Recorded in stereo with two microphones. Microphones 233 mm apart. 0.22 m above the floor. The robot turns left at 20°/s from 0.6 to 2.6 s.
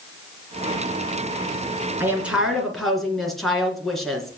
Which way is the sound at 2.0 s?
10° right (ahead or behind).